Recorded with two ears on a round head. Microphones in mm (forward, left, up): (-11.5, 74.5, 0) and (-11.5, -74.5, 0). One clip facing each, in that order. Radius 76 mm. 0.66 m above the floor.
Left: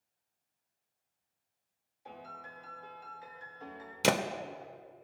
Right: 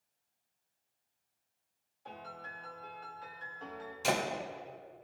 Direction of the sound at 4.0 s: 70° left (ahead or behind).